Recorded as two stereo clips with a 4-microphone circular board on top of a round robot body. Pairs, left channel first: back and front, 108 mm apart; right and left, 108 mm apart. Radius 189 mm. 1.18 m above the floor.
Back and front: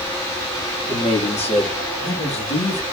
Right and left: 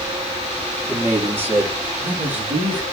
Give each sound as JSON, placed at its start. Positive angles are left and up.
{"t": 0.9, "sound": "a man speaking", "azimuth_deg": 160, "distance_m": 5.0}